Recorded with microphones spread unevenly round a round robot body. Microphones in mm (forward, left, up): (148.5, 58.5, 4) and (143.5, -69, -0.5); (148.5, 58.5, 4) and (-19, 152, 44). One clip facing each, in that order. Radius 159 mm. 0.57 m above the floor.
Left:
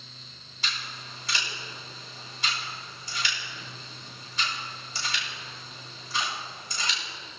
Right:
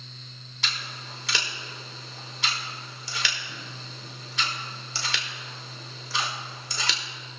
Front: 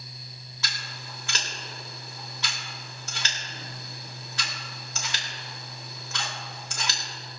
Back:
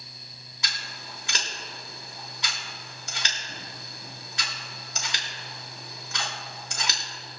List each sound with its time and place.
0.6 s scissors: 125° right, 0.9 m